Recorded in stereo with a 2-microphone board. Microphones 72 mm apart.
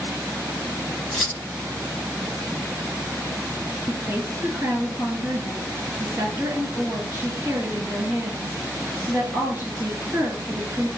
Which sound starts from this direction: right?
A woman speaking, at 3.9 s.